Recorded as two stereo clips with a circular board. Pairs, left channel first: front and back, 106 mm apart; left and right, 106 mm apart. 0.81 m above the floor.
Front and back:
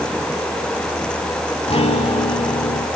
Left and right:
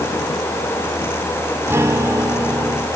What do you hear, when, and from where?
1.7 s a guitar: 25° right, 1.5 m